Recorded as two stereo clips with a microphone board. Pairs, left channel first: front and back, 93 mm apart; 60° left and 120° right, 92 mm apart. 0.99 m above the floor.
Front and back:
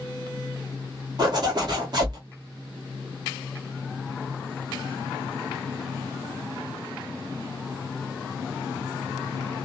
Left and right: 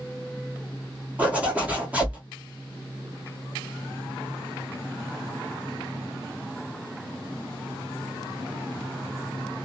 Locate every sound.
1.2 s a zipper: 170° left, 1.2 m